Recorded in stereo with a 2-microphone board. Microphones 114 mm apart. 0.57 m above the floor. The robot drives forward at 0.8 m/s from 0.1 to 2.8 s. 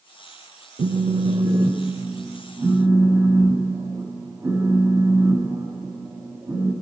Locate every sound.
0.8 s a phone buzzing: 80° right, 0.6 m; by 6.7 s 20° right (ahead or behind), 1.8 m